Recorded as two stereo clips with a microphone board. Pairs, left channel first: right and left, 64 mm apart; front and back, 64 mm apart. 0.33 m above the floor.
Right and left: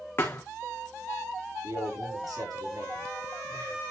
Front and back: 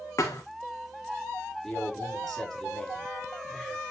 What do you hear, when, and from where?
0.2 s a thud: 35° right, 2 m
1.6 s a man speaking: 90° left, 6 m